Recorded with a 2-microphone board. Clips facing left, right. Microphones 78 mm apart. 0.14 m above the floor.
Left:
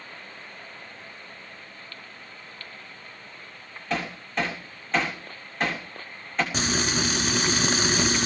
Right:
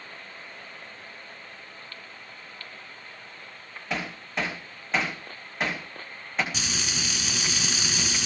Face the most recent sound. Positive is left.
turn(degrees=45)  # may be behind; listen again after turning